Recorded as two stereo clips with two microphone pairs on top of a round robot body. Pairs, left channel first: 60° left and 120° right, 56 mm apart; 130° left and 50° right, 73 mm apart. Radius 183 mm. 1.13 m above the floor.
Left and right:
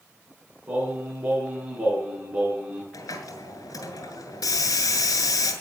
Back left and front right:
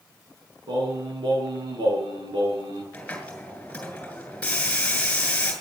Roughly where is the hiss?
Ahead left.